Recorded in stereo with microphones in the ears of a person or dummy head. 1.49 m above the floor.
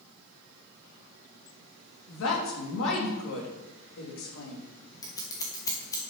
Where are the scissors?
20° left (ahead or behind), 1.4 m.